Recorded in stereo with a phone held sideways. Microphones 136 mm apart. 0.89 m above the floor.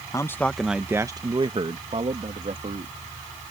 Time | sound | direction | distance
0.1 | a man speaking | 25° left (ahead or behind) | ?